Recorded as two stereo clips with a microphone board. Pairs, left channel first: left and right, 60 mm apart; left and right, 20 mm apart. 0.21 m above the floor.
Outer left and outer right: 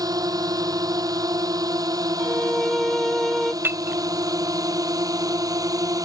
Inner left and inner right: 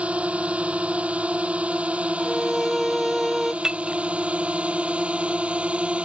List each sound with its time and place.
0.0 s a drone: 80° right; by 6.0 s 65° right (ahead or behind)
2.2 s a violin: 5° left (ahead or behind)
3.6 s breaking glass: 30° right (ahead or behind)